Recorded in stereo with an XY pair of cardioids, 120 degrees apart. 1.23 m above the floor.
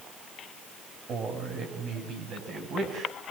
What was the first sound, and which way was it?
A man speaking, 55° right.